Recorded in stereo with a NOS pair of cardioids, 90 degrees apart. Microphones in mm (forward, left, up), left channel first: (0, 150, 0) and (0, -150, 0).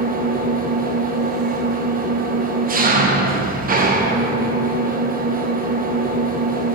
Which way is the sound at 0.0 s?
30° right.